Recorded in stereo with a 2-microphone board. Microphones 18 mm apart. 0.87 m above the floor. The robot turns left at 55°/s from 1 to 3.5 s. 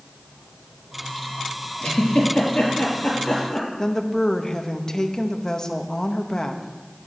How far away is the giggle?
About 4 m.